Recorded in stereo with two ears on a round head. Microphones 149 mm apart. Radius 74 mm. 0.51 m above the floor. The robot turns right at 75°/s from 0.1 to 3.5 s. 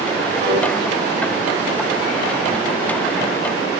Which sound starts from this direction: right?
A piano, at 0.4 s.